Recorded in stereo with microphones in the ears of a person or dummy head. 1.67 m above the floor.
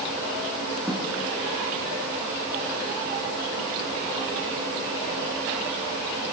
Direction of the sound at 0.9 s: Centre (ahead or behind).